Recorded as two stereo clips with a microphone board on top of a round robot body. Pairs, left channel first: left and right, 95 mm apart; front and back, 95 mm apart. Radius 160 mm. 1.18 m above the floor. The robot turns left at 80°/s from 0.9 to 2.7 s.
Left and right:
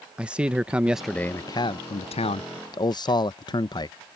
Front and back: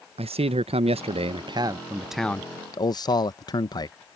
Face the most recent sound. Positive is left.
turn(degrees=45)